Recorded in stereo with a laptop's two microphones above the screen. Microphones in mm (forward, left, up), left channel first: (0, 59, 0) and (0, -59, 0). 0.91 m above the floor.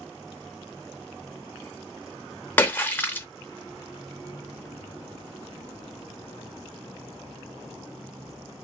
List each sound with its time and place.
2.6 s a splash: 15° left (ahead or behind), 0.6 m